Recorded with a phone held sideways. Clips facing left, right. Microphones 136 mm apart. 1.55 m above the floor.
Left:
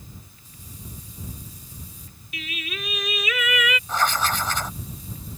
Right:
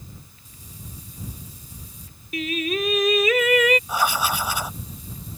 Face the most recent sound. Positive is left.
turn(degrees=-10)  # may be behind; listen again after turning